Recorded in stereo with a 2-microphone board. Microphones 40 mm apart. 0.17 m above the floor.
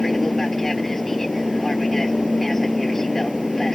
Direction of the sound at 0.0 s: 10° left (ahead or behind).